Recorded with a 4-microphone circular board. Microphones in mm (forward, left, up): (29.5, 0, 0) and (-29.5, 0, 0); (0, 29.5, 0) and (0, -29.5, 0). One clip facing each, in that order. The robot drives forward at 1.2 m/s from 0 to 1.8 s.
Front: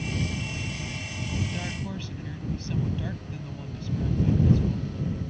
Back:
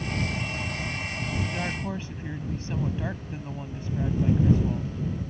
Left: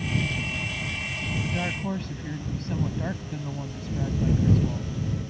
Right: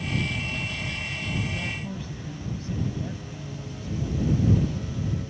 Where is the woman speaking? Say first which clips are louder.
Back 3 dB, left 3 dB; 115° left; by 4.9 s 120° left.